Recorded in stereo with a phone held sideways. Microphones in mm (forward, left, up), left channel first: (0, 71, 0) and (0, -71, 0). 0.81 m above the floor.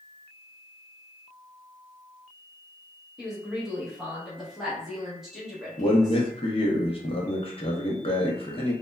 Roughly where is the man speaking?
Left.